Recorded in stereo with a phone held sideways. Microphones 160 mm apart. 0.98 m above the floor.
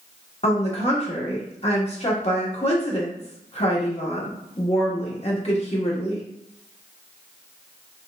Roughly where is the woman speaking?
Left.